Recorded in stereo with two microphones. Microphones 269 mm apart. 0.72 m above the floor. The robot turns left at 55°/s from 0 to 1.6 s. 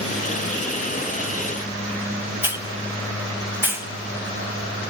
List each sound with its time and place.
2.4 s a hiss: 10° right (ahead or behind), 1.3 m